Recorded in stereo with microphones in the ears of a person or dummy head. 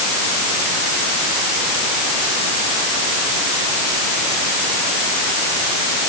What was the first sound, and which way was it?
Only background noise.